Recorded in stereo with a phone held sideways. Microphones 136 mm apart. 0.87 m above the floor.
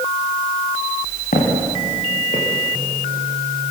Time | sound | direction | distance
1.3 | footsteps | 85° left | 8 m